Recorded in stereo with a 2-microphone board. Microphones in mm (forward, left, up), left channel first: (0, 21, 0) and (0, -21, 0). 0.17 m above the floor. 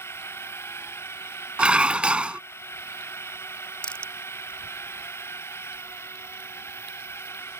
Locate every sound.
0.0 s a drone: 85° left
1.6 s dishes clattering: 25° right (ahead or behind)
3.8 s crushing: 25° left (ahead or behind)